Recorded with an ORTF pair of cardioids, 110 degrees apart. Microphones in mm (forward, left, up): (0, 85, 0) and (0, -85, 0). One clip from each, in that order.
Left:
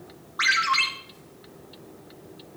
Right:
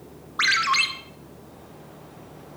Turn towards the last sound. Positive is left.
turn(degrees=-15)